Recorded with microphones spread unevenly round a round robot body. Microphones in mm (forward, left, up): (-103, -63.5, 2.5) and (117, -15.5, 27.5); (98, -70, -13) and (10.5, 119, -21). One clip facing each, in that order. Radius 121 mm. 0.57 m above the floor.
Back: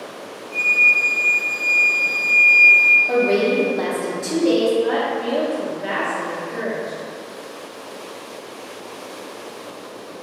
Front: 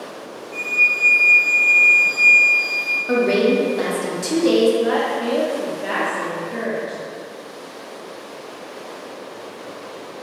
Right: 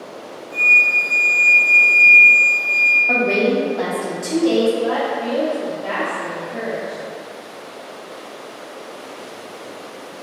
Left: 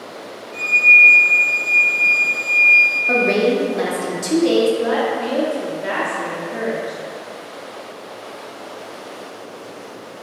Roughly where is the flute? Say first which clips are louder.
Even, left 1 dB; right.